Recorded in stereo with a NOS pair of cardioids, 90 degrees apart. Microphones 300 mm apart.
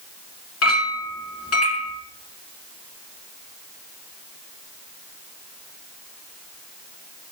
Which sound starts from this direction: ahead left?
A clink, at 0.6 s.